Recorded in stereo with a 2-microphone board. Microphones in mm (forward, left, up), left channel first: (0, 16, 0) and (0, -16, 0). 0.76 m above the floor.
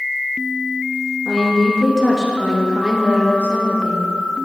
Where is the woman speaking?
20° left (ahead or behind), 0.9 m; by 4.0 s 55° right (ahead or behind), 1.4 m.